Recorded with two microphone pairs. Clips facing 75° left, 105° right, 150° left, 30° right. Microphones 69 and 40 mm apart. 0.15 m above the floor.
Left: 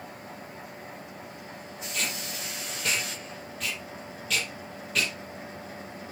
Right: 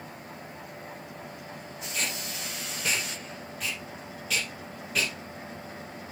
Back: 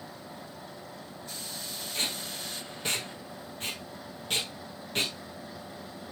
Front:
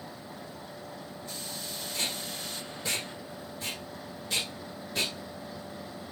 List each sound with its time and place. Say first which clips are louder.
1.9 s tape being pulled: even, back 1 dB; 170° left, 5.5 m